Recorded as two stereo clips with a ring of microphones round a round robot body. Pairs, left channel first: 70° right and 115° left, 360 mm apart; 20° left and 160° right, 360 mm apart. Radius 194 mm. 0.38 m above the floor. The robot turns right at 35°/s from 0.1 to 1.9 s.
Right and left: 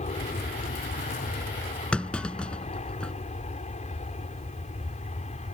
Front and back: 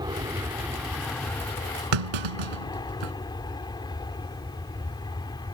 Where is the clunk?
155° right.